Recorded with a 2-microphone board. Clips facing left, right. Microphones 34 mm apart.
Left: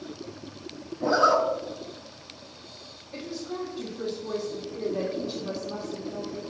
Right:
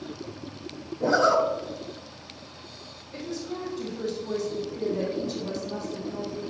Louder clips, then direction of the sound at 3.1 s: Right 1 dB; 30° left (ahead or behind).